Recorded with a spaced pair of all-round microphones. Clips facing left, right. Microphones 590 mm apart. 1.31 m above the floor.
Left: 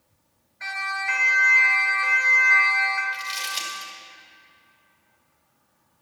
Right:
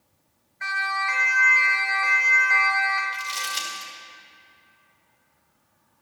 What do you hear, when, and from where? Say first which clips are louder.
0.6 s a siren: right 2 dB; 35° left (ahead or behind), 4.5 m; by 3.0 s 50° left (ahead or behind), 3 m
3.1 s crumpling: right 1 dB; 80° right, 2.5 m